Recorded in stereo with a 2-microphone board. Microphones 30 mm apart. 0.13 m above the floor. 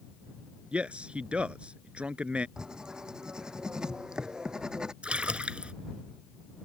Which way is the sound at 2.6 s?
25° right (ahead or behind).